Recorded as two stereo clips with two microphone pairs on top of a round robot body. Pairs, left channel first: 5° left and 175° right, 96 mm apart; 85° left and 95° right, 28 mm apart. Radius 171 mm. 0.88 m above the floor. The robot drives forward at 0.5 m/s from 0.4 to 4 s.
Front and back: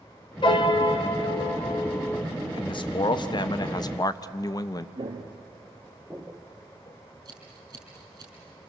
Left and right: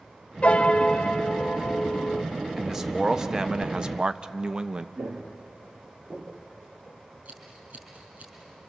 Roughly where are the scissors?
Behind right.